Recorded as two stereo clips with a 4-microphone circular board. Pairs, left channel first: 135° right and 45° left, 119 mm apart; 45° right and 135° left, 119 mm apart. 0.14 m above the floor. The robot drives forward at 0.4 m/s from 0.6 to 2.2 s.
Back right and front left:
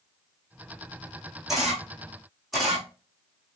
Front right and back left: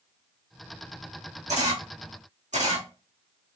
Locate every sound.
1.5 s a camera shutter: 130° left, 2.5 m; by 3.6 s 135° left, 3 m